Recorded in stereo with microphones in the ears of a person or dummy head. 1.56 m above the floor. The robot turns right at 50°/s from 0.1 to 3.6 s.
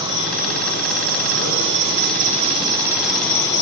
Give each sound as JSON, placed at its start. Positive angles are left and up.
{"t": 0.0, "sound": "an insect", "azimuth_deg": -150, "distance_m": 8.5}